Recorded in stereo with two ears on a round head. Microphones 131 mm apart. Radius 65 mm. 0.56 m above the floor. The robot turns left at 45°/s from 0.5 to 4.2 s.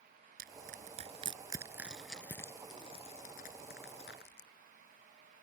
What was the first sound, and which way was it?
Crushing, 70° right (ahead or behind).